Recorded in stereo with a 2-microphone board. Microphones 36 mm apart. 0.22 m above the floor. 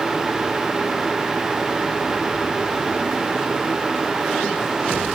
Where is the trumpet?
I don't hear a trumpet.